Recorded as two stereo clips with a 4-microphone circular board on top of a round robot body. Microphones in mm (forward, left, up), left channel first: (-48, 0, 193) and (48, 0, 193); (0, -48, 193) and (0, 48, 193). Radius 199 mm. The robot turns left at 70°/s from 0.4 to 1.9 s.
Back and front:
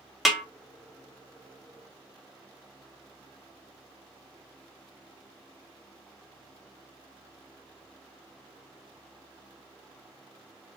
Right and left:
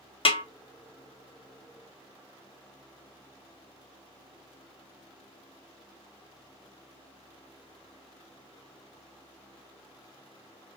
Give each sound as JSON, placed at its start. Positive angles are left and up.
{"t": 0.2, "sound": "a snare drum", "azimuth_deg": -90, "distance_m": 0.8}